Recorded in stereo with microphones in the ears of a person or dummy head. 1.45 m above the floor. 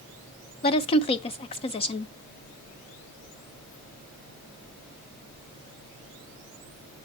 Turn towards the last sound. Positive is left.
turn(degrees=25)  # may be behind; listen again after turning